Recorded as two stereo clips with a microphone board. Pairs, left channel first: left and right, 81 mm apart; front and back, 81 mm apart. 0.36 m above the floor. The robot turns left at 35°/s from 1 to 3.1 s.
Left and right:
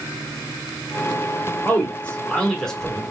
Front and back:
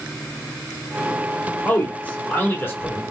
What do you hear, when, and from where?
1.6 s a man speaking: 50° left, 1.2 m; by 3.0 s 5° left, 1.2 m